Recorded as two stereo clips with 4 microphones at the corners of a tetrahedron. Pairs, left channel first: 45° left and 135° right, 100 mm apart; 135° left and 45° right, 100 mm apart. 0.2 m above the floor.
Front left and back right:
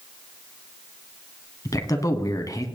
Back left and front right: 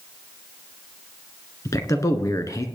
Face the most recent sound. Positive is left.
turn(degrees=90)